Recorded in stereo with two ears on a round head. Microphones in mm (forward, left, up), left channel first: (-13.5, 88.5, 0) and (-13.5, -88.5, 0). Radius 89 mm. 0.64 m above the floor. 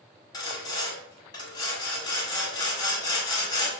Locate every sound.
0.3 s sawing: 20° left (ahead or behind), 1.2 m